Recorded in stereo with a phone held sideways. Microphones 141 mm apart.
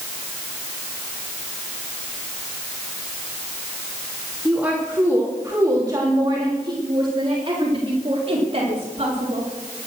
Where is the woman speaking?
10° right (ahead or behind), 3 m; by 9.5 s 50° right (ahead or behind), 4.5 m.